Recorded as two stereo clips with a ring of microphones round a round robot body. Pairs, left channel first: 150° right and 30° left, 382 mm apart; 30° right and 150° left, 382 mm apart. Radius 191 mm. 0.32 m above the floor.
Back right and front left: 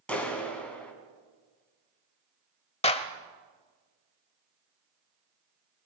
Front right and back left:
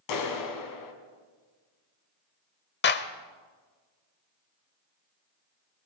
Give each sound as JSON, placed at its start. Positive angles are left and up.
{"t": 0.1, "sound": "a clap", "azimuth_deg": -65, "distance_m": 3.0}
{"t": 2.8, "sound": "a clap", "azimuth_deg": -80, "distance_m": 1.0}